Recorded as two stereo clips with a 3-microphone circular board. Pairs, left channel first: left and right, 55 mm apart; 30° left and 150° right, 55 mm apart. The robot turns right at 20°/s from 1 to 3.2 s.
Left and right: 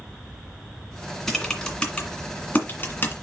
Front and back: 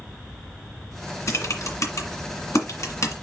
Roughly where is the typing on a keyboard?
Ahead.